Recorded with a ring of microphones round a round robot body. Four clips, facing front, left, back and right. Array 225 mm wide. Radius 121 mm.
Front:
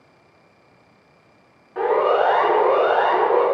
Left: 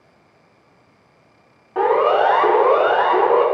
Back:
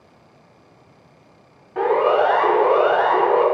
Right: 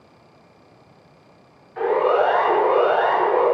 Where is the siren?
90° left, 5 m; by 3.4 s 80° left, 7.5 m.